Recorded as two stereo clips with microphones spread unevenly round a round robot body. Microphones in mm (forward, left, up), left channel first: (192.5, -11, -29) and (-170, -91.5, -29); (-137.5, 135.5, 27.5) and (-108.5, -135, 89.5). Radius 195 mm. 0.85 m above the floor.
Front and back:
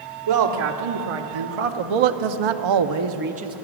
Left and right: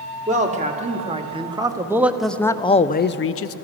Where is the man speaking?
150° right, 1.6 m; by 3.5 s 115° left, 0.6 m.